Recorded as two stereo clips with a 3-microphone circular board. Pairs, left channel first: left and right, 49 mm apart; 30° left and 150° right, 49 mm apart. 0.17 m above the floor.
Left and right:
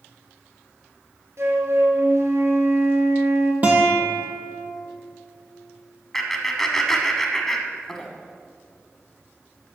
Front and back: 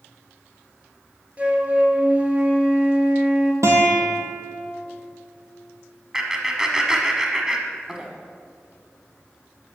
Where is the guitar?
145° right, 1.7 m.